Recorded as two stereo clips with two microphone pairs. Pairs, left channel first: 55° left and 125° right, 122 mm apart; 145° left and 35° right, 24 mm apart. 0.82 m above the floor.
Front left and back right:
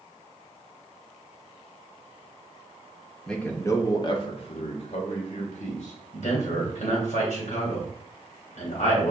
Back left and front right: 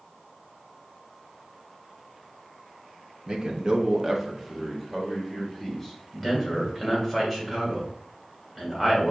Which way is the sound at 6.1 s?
40° left.